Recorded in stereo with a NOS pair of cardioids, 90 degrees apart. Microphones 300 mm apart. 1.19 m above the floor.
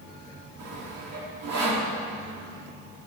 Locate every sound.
0.6 s sawing: 60° right, 2 m